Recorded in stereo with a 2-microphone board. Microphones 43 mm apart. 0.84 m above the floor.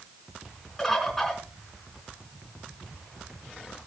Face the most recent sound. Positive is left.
turn(degrees=10)  # may be behind; listen again after turning